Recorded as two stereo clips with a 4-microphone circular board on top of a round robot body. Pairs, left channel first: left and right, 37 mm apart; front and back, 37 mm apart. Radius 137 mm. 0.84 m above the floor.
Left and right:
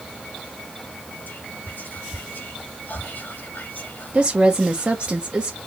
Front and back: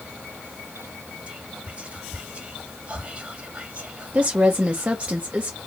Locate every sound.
1.3 s whispering: 120° left, 2.0 m
4.1 s a woman speaking: 135° right, 1.2 m